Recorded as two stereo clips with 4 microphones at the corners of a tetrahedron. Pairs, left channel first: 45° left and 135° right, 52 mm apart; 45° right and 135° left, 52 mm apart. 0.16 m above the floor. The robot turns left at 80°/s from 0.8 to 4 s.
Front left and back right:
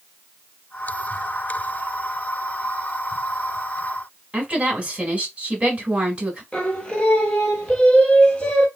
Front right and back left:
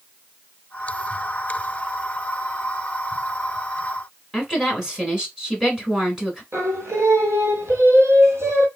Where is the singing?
115° left, 1.1 m.